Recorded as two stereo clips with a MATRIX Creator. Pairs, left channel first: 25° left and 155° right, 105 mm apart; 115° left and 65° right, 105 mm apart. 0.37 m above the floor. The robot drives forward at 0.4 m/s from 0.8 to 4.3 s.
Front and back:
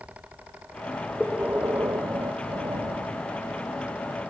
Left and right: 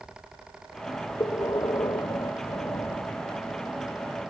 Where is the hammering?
No hammering in this recording.